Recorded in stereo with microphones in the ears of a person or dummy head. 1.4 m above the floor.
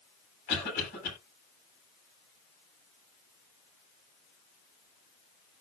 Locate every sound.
0.5 s a cough: 60° left (ahead or behind), 9.5 m